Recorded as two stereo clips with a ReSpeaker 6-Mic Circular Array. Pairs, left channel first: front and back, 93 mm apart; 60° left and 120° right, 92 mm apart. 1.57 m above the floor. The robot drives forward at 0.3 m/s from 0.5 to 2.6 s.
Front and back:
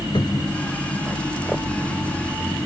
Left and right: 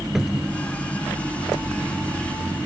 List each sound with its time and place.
0.1 s a cupboard door: 35° right